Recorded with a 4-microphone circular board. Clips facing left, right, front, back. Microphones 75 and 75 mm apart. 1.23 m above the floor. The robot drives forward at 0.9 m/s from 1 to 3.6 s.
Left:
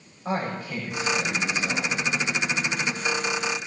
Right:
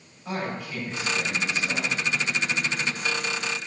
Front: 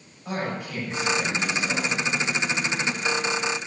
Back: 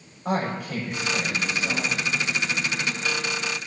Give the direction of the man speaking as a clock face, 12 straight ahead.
7 o'clock.